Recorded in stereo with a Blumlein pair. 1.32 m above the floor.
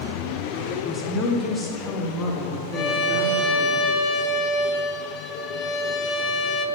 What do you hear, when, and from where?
0.7 s a woman speaking: 5° left, 1.4 m; by 3.7 s 20° left, 3.5 m
2.7 s a violin: 25° left, 0.9 m